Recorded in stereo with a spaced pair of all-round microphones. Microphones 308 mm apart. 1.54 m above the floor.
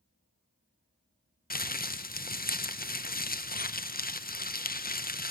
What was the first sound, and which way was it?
Crumpling, 30° left (ahead or behind).